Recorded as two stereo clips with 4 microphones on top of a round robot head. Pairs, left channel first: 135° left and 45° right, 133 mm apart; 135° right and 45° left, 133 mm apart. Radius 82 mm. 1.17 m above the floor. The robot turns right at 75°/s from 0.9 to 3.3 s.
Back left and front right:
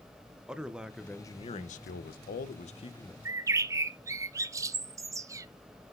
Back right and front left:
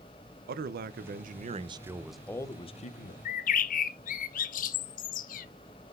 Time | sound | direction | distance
0.5 | a man speaking | 40° left | 0.5 m
3.2 | a bird | 115° right | 0.5 m